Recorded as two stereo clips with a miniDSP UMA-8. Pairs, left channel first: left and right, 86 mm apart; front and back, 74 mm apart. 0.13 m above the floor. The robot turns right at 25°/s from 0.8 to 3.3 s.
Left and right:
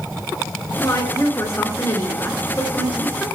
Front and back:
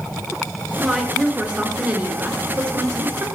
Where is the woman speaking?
95° left, 2 m; by 3.3 s 160° left, 2 m.